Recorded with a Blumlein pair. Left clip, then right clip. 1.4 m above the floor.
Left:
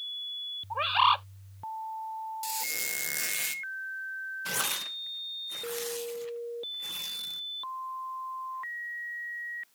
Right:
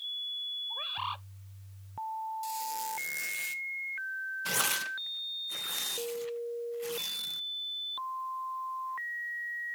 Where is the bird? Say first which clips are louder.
Left 11 dB; 55° left.